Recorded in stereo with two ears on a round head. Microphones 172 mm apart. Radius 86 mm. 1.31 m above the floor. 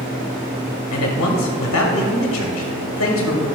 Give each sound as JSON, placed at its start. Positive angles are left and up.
{"t": 0.9, "sound": "a man speaking", "side_deg": 70, "distance_m": 1.0}